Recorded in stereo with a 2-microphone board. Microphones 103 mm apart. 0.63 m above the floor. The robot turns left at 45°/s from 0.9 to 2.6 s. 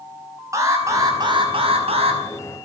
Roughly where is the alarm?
Ahead right.